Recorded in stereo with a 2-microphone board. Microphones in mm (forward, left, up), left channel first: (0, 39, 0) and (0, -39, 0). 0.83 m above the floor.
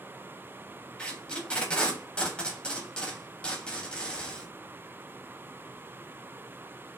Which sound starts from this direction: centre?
Tape being pulled, at 1.0 s.